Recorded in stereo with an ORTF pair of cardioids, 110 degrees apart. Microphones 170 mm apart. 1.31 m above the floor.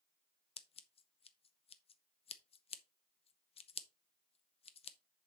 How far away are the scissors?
About 0.9 m.